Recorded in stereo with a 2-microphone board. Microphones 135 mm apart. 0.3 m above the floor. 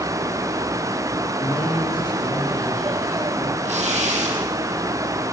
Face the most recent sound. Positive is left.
turn(degrees=-60)  # may be behind; listen again after turning